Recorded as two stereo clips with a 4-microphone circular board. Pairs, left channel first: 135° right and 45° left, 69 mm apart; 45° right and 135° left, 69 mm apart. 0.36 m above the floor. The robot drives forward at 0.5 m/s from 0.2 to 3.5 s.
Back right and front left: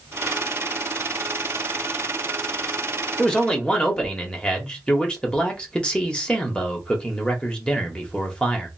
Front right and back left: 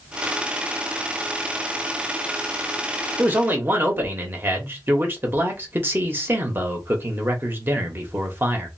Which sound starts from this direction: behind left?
A man speaking, at 3.2 s.